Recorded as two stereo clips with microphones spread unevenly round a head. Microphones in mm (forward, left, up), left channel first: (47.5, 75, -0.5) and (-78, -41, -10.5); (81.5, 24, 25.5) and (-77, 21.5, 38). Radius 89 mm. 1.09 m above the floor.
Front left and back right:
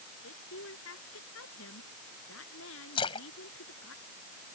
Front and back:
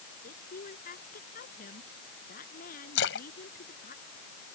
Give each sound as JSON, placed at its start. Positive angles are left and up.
{"t": 0.2, "sound": "a woman speaking", "azimuth_deg": 35}
{"t": 3.0, "sound": "a splash", "azimuth_deg": -20}